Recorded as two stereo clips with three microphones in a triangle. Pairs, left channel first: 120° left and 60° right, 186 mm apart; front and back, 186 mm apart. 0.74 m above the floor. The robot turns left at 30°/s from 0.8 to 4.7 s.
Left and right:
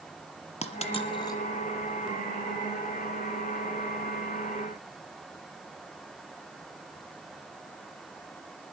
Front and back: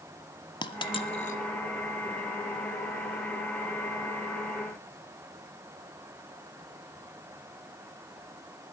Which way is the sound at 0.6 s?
65° left.